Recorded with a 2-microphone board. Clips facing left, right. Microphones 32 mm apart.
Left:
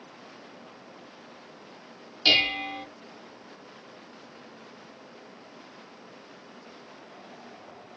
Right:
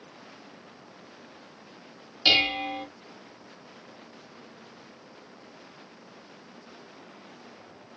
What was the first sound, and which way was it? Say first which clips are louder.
Dishes clattering: even; 5° left (ahead or behind).